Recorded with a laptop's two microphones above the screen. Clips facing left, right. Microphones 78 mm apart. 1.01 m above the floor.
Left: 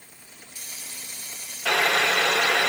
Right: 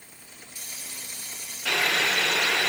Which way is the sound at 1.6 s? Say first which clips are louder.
Left 4 dB; 85° left.